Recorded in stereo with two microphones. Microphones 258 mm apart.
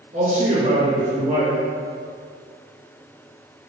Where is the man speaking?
30° right (ahead or behind), 1.2 m.